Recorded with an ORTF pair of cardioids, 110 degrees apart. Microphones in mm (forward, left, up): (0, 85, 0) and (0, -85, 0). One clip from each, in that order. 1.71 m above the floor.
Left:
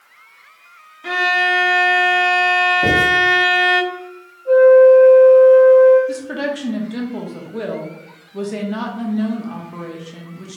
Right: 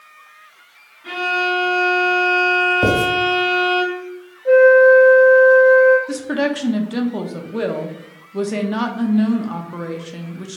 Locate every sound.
1.0 s a violin: 65° left, 0.8 m
2.8 s writing: 60° right, 2.0 m
4.5 s a flute: 60° right, 1.6 m
6.1 s a woman speaking: 20° right, 0.6 m